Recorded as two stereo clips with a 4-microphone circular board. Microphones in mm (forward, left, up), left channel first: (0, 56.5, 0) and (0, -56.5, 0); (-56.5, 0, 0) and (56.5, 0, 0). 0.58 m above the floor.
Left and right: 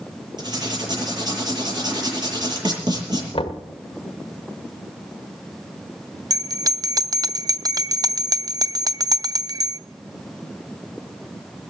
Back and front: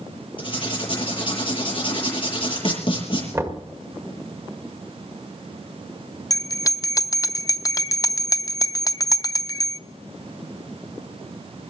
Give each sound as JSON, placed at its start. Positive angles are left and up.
{"t": 0.4, "sound": "writing", "azimuth_deg": -140, "distance_m": 7.5}
{"t": 3.3, "sound": "knocking", "azimuth_deg": 65, "distance_m": 1.5}
{"t": 6.3, "sound": "a bell", "azimuth_deg": -130, "distance_m": 0.5}